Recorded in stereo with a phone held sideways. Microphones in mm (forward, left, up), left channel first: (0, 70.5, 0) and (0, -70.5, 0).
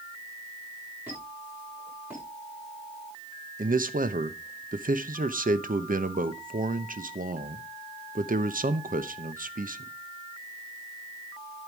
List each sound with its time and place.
1.1 s a squeak: 15° right (ahead or behind), 7.5 m
3.6 s a man speaking: 75° right (ahead or behind), 0.9 m